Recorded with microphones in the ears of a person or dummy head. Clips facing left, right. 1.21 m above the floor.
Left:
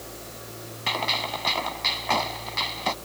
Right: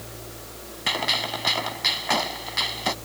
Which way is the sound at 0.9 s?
10° right (ahead or behind).